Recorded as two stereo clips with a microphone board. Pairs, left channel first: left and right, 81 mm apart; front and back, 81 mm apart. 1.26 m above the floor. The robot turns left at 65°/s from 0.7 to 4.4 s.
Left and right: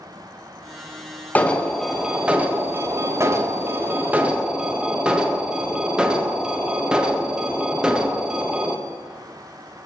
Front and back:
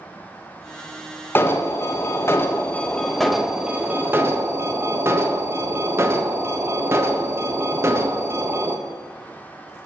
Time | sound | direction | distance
1.4 | an alarm | 35° left | 0.9 m